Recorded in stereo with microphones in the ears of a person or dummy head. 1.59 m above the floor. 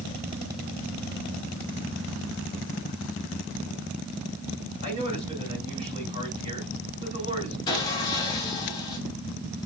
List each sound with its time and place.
4.8 s a man speaking: 35° right (ahead or behind), 3 m
7.7 s sawing: 15° left (ahead or behind), 1.1 m